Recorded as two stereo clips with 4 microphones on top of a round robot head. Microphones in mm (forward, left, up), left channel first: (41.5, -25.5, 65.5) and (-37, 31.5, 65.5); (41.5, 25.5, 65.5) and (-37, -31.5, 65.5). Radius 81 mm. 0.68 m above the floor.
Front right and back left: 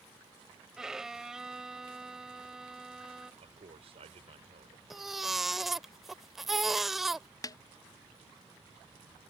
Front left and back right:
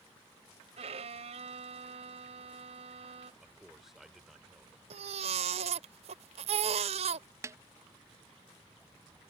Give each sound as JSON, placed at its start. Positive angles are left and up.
{"t": 0.8, "sound": "a violin", "azimuth_deg": -130}
{"t": 3.4, "sound": "a man speaking", "azimuth_deg": 130}
{"t": 4.9, "sound": "a baby crying", "azimuth_deg": -130}
{"t": 7.4, "sound": "a snare drum", "azimuth_deg": -85}